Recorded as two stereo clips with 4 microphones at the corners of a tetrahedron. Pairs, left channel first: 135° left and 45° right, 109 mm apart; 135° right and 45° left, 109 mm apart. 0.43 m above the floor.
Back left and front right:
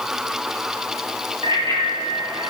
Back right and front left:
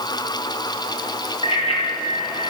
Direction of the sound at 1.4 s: 95° right.